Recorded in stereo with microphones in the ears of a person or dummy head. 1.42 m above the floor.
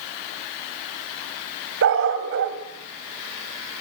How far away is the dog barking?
About 2.5 m.